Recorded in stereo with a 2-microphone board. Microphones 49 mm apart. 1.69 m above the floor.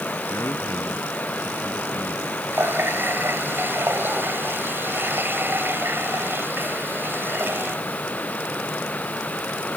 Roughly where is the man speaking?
Left.